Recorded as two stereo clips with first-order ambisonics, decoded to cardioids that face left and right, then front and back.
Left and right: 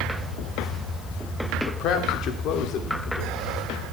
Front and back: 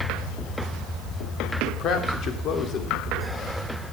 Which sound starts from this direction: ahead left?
A man speaking, at 1.7 s.